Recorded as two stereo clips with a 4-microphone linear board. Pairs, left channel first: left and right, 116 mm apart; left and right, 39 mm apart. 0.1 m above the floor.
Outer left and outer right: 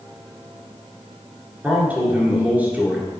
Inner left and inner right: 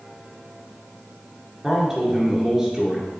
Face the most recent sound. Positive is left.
turn(degrees=-15)  # may be behind; listen again after turning